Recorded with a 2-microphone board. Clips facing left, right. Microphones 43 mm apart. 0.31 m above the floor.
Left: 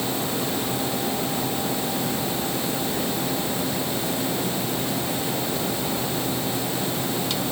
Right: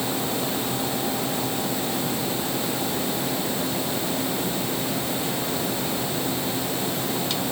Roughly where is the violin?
No violin in this recording.